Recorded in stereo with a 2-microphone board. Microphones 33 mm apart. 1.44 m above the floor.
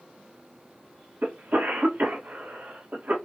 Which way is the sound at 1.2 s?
80° right.